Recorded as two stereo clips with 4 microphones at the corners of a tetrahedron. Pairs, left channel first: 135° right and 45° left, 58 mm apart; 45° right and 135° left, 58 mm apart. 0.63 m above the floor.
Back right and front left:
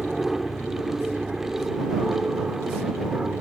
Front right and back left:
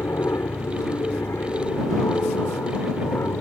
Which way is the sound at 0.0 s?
40° right.